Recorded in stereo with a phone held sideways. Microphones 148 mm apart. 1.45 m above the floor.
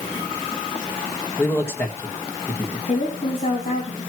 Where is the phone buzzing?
No phone buzzing in this recording.